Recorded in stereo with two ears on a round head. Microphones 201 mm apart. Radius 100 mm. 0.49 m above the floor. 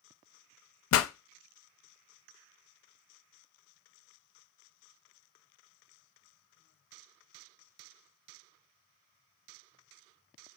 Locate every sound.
0.9 s a pop: 60° left (ahead or behind), 0.5 m